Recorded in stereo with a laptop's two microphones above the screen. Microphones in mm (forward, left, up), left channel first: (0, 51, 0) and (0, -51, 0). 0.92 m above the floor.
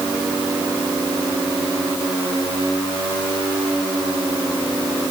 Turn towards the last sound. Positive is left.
No sound to turn to.